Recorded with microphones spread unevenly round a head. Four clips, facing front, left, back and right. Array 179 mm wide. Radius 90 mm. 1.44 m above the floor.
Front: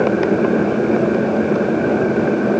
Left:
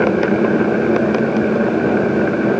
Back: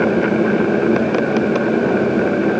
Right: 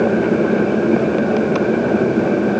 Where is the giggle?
No giggle in this recording.